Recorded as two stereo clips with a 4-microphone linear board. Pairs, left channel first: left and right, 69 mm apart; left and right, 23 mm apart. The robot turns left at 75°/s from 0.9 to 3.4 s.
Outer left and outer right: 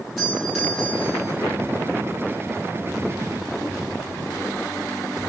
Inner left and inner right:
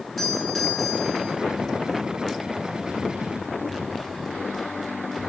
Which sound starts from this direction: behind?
A doorbell, at 0.2 s.